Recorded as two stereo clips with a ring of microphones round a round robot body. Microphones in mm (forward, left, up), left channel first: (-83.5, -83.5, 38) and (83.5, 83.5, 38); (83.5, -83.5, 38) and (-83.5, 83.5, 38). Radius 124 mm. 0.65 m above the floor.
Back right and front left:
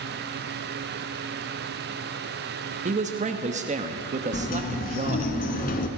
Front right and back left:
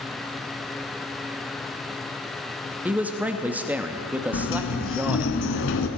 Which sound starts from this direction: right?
A sliding door, at 4.3 s.